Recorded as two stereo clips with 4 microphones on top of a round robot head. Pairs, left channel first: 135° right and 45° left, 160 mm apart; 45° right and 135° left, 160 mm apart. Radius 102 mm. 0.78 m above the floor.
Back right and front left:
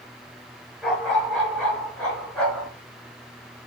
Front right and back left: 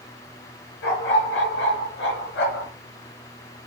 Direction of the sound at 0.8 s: 50° right.